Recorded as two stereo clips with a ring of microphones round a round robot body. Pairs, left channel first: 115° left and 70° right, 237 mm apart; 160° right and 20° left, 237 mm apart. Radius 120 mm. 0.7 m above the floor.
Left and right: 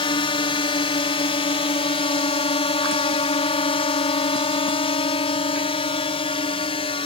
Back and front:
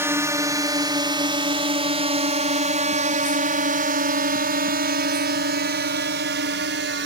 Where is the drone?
85° left; by 7.1 s 50° left.